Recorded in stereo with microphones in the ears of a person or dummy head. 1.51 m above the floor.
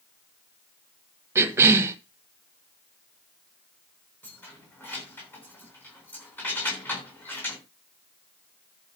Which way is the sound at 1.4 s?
20° right (ahead or behind).